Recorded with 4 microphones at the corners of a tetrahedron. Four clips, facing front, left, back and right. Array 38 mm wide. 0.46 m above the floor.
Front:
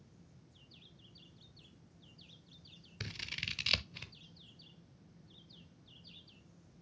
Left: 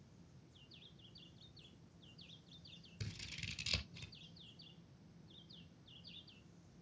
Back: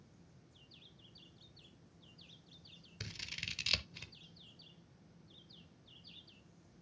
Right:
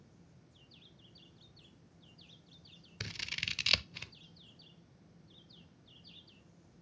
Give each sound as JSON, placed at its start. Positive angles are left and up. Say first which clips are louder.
{"t": 3.0, "sound": "scissors", "louder": "right 11 dB, front 3 dB", "azimuth_deg": -65, "distance_m": 0.7}